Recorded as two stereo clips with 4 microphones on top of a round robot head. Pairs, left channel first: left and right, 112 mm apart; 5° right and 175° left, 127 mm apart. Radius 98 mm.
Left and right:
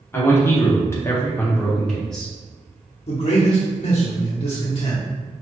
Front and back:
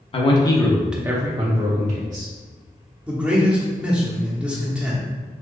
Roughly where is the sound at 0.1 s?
Ahead left.